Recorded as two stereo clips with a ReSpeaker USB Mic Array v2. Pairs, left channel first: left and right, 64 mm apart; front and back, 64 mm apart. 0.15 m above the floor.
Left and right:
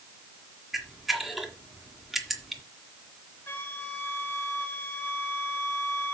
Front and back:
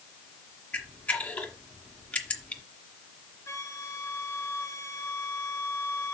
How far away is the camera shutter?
About 1.7 m.